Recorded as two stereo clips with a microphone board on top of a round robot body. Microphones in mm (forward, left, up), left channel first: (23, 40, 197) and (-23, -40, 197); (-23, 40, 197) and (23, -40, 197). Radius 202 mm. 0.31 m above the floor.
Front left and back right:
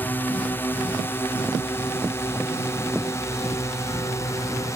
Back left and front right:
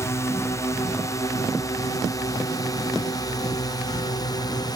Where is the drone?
110° left; by 4.8 s 105° left.